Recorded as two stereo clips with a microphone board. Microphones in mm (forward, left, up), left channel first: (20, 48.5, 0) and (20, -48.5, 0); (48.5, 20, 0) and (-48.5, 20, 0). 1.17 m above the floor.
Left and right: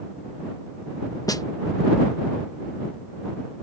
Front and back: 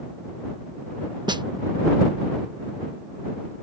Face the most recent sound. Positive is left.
turn(degrees=140)